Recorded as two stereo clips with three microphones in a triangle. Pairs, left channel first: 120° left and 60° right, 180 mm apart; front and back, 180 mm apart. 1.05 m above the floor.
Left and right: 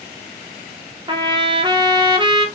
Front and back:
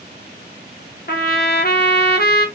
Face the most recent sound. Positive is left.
turn(degrees=0)